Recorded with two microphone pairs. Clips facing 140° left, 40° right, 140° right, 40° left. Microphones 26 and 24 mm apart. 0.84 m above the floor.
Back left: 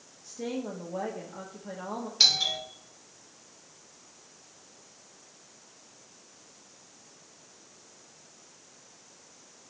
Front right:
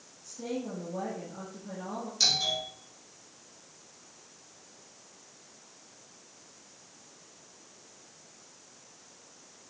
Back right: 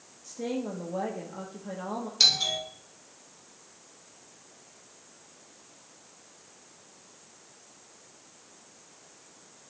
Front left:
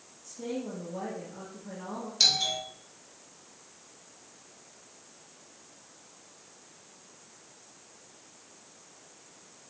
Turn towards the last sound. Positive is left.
turn(degrees=150)